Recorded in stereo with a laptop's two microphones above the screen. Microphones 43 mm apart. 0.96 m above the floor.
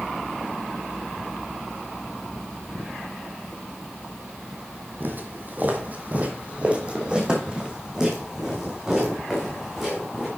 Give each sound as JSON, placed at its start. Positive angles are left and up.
{"t": 5.0, "sound": "footsteps", "side_deg": -50, "distance_m": 1.5}